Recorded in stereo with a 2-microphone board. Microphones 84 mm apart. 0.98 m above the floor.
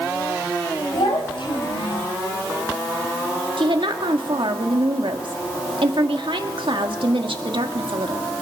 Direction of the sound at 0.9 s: 80° left.